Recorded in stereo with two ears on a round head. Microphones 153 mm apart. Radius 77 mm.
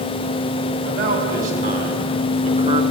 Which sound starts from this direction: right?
A man speaking, at 0.8 s.